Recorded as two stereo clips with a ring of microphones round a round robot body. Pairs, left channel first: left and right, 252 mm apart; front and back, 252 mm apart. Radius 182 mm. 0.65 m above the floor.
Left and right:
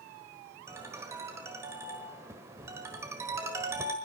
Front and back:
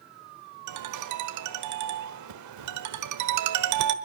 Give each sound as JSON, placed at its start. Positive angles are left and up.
{"t": 0.7, "sound": "a ringtone", "azimuth_deg": -175, "distance_m": 1.2}